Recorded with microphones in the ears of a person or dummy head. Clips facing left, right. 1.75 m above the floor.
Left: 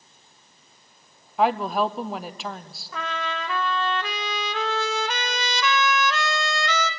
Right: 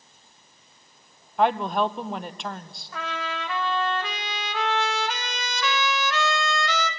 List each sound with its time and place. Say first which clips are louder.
1.4 s a woman speaking: even; centre (ahead or behind), 0.6 m
2.9 s a trumpet: left 2 dB; 70° left (ahead or behind), 1.4 m